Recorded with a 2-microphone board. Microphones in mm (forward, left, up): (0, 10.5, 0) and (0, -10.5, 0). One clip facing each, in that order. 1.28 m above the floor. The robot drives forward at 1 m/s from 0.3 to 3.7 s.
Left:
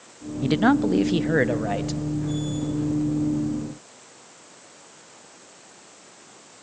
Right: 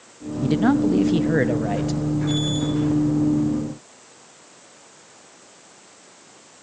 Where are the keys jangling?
I don't hear keys jangling.